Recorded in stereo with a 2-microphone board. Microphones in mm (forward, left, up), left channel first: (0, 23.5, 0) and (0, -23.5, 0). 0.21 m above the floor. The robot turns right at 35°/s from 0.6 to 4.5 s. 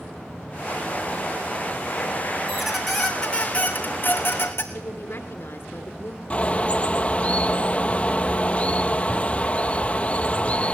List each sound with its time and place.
2.5 s a squeak: 10° right, 2.5 m; by 4.6 s 60° left, 2.5 m
4.7 s a woman speaking: 60° left (ahead or behind), 3 m
6.3 s a bird: 30° left (ahead or behind), 0.8 m